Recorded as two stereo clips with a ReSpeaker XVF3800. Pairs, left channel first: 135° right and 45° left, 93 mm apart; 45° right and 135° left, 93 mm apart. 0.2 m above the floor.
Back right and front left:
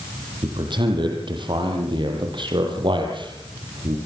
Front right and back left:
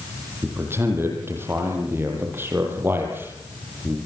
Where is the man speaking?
70° left, 7.5 m.